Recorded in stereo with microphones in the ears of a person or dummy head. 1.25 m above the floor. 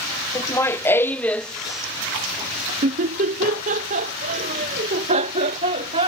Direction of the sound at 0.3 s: 15° left (ahead or behind).